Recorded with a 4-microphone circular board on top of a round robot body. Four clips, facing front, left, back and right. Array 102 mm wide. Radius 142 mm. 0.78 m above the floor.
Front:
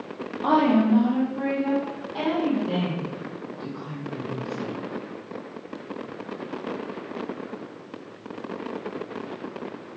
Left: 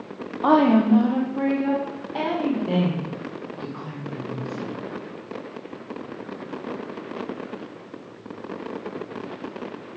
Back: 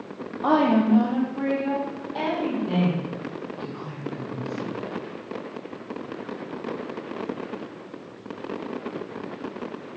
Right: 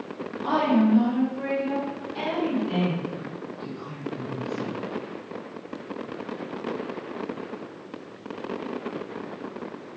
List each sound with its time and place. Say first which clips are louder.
0.4 s a woman speaking: left 5 dB, even; 105° left, 1.9 m; by 4.7 s 85° left, 4.5 m